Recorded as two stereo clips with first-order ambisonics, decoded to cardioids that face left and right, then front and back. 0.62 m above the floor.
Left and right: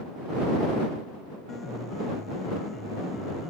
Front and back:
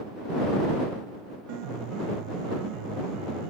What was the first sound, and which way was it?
A piano, 165° left.